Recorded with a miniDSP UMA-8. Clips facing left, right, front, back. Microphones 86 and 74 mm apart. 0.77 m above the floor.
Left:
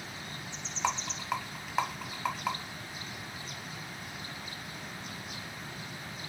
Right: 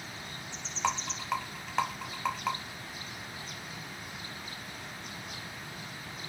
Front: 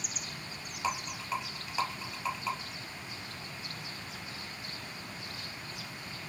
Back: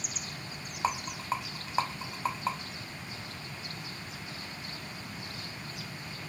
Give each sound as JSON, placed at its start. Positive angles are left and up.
{"t": 0.8, "sound": "a rattle", "azimuth_deg": 170, "distance_m": 0.7}